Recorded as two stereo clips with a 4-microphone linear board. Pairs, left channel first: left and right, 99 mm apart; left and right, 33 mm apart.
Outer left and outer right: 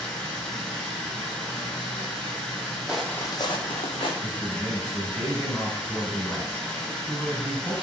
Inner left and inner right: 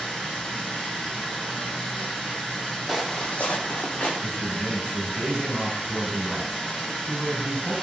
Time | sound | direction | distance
0.0 | running water | 5° left (ahead or behind) | 1.8 m
2.9 | footsteps | 10° right (ahead or behind) | 0.5 m
4.2 | a man speaking | 10° left (ahead or behind) | 1.7 m